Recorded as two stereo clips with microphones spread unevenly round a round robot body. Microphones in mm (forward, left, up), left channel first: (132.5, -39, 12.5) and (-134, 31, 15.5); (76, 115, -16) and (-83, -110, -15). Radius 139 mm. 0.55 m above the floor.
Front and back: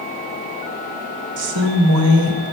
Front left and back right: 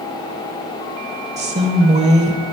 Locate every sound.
1.4 s a woman speaking: 170° left, 1.7 m